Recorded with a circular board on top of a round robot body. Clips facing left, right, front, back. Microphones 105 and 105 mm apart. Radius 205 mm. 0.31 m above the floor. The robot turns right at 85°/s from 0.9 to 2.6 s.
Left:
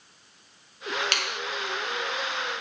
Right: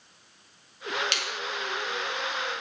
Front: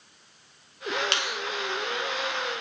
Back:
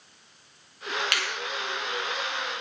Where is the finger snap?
60° left, 2.0 m; by 1.4 s 85° left, 2.0 m.